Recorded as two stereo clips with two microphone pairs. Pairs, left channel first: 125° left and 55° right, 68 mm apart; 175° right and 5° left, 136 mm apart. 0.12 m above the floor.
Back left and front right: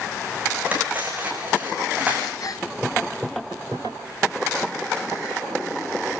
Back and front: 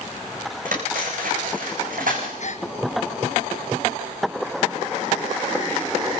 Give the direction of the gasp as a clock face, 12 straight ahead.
7 o'clock.